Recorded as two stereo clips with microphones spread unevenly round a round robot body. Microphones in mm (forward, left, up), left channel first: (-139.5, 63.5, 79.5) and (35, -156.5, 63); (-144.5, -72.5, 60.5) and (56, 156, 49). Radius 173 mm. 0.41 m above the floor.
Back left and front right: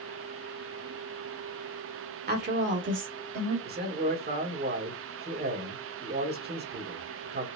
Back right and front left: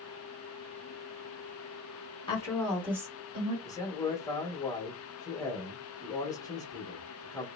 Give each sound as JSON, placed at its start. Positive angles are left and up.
{"t": 2.3, "sound": "a woman speaking", "azimuth_deg": -65, "distance_m": 1.2}
{"t": 3.6, "sound": "a man speaking", "azimuth_deg": -55, "distance_m": 1.2}